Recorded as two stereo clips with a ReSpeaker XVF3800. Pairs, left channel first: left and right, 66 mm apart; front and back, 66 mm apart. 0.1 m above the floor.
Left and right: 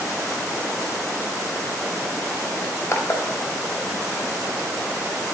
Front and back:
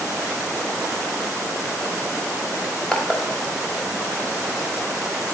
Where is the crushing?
60° left, 0.8 m.